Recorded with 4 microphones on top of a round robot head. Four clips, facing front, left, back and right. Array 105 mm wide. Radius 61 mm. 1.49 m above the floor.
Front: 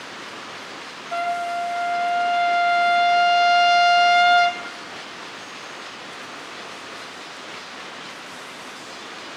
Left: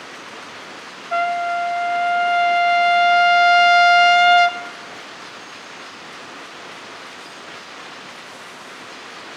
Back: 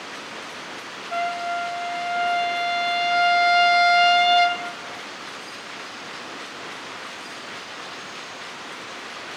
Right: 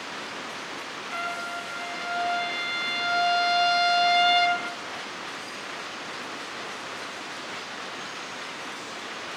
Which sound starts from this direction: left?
A trumpet, at 1.1 s.